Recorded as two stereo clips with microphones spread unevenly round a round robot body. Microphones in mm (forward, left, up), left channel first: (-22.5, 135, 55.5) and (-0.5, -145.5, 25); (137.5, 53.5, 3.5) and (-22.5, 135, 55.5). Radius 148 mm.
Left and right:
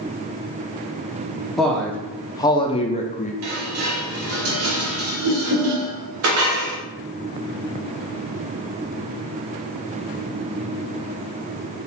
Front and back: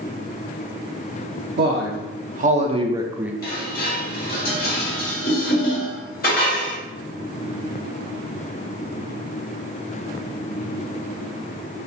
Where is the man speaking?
170° right, 0.9 m; by 3.3 s 45° left, 0.7 m.